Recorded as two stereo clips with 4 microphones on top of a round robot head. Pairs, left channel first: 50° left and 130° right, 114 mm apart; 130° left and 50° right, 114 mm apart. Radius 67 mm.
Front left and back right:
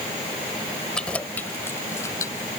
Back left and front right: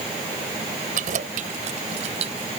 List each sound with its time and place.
0.9 s keys jangling: 30° right; by 2.5 s 10° right